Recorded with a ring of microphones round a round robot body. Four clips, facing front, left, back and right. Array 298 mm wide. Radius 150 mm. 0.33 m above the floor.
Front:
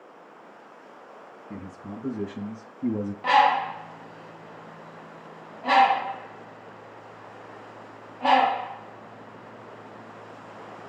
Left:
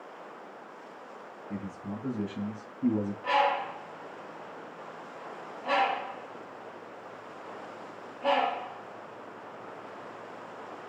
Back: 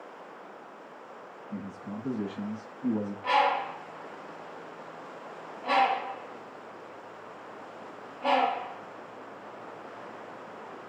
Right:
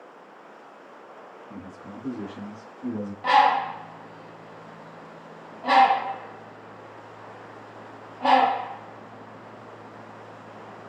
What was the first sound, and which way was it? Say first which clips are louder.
A man speaking: left 3 dB, even; 20° left.